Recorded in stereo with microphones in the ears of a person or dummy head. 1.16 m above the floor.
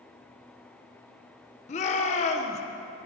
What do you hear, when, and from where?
1.7 s a shout: 30° left (ahead or behind), 0.7 m